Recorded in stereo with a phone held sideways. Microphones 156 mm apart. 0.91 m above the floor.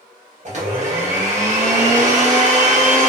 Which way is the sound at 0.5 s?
50° right (ahead or behind).